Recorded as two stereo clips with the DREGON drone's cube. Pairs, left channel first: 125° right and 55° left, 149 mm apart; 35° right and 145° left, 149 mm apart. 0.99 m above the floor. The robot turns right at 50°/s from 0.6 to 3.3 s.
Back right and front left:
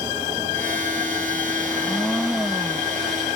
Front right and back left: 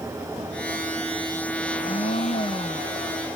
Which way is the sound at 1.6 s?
60° right.